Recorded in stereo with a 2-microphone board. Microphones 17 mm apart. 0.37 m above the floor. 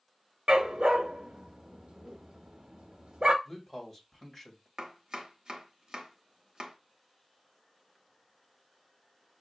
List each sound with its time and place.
0.5 s a dog barking: 65° right (ahead or behind), 0.6 m
3.5 s a man speaking: 10° left (ahead or behind), 1.7 m
4.8 s chopping: 45° right (ahead or behind), 0.8 m